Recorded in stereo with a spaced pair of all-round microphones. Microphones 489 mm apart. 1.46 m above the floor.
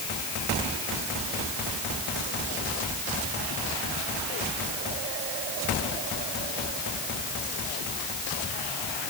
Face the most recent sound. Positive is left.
No sound to turn to.